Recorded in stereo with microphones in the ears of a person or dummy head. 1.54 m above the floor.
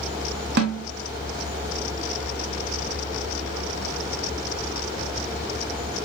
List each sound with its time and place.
0.6 s a snare drum: 60° right (ahead or behind), 0.8 m